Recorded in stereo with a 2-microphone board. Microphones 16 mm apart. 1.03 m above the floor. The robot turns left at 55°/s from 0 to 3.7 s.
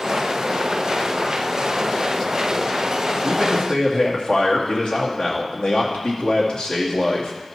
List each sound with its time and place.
3.2 s a man speaking: 30° left (ahead or behind), 2.5 m; by 7.3 s 55° left (ahead or behind), 2.5 m